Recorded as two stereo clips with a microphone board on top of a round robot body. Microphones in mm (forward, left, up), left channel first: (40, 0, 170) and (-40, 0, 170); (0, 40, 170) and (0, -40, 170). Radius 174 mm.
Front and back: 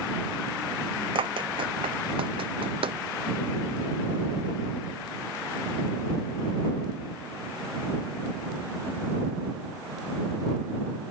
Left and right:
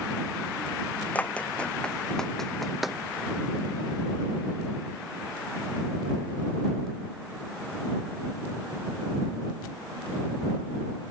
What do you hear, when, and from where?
1.1 s running footsteps: 165° left; by 3.0 s 175° right